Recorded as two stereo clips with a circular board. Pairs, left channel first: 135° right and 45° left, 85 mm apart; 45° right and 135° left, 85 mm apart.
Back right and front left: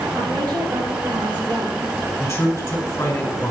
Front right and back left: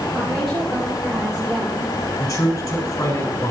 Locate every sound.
0.1 s a woman speaking: 45° left, 5.5 m; by 1.9 s 65° left, 5.5 m
2.2 s a man speaking: 75° right, 4.5 m